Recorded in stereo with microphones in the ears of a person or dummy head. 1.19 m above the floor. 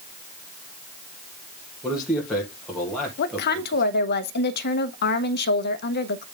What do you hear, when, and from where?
1.8 s a man speaking: 10° left (ahead or behind), 1.5 m
3.2 s a woman speaking: 65° left (ahead or behind), 0.7 m